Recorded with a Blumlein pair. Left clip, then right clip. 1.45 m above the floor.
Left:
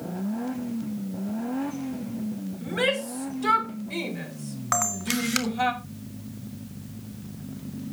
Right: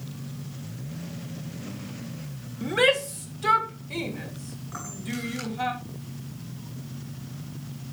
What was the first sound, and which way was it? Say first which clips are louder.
A shout: right 4 dB; 20° right.